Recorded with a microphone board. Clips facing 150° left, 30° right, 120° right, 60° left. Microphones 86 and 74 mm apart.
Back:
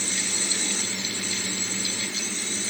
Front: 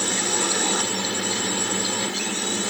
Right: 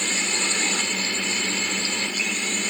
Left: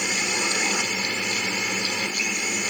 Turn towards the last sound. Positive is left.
turn(degrees=-15)